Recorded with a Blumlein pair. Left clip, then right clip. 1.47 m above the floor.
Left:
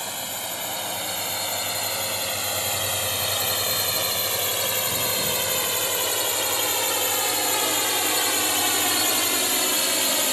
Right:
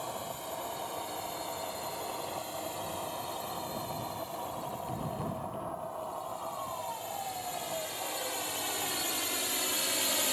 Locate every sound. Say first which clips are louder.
0.0 s a drone: left 8 dB; 55° left; by 10.3 s 20° left